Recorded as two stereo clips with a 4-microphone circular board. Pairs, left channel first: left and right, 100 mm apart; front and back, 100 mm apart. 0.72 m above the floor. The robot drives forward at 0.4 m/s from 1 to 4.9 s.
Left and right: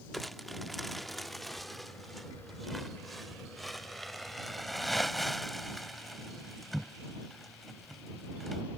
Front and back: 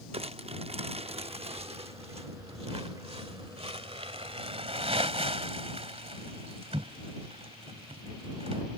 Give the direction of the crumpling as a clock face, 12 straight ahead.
6 o'clock.